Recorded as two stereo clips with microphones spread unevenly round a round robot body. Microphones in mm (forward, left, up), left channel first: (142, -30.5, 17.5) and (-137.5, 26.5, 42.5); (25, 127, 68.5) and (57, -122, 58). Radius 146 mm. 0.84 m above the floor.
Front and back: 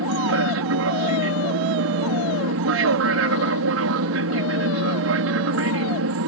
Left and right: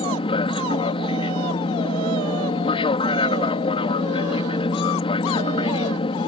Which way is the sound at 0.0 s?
160° left.